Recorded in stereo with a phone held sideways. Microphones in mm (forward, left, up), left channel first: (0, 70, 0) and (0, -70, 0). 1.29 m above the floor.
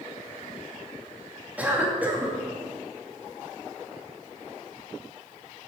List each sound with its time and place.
1.6 s a cough: 10° right (ahead or behind), 2.5 m